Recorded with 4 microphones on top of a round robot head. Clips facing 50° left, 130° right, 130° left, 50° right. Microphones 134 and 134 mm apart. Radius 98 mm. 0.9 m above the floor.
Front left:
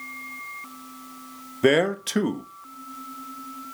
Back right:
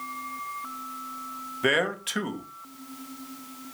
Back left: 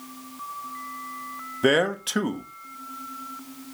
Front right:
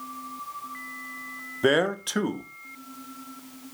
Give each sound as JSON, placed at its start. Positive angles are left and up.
{"t": 1.6, "sound": "a man speaking", "azimuth_deg": 40, "distance_m": 0.9}